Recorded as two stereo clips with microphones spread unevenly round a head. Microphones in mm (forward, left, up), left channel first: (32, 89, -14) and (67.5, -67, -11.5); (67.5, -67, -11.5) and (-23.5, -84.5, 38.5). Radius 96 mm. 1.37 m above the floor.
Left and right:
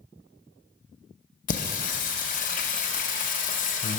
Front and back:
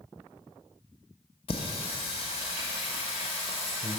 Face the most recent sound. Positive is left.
turn(degrees=80)